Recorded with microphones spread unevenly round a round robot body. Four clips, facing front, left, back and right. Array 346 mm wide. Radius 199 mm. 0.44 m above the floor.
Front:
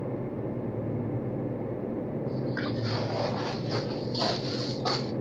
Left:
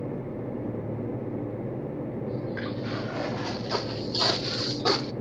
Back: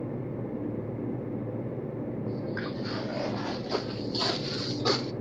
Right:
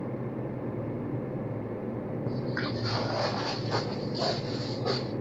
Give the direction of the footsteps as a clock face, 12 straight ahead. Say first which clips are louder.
Even, front 2 dB; 4 o'clock.